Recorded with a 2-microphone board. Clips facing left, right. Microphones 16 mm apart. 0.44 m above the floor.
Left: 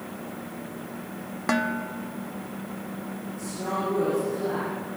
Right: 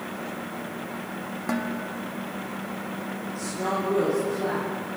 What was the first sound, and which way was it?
Dishes clattering, 35° left (ahead or behind).